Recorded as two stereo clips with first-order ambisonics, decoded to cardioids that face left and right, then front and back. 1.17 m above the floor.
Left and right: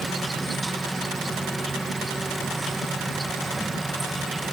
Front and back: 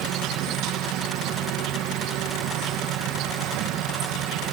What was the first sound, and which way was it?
An insect, 175° right.